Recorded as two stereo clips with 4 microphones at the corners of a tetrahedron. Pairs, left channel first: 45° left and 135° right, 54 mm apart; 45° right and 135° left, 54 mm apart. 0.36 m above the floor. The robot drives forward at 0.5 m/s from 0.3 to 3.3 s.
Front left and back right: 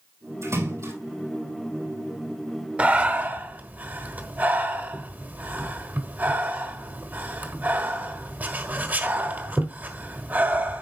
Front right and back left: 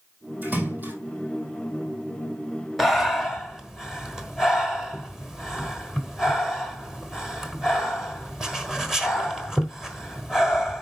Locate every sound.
0.4 s a splash: 165° right, 5 m
2.8 s breathing: 135° right, 1.0 m; by 10.8 s 150° right, 1.1 m